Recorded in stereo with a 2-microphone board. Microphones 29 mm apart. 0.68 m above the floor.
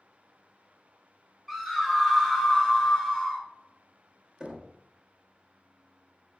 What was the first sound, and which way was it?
A scream, 10° right (ahead or behind).